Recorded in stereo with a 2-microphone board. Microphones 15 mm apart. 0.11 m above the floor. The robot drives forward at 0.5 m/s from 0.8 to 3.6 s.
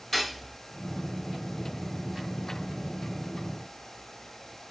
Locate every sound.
0.1 s cutlery clinking: 10° left (ahead or behind), 1.9 m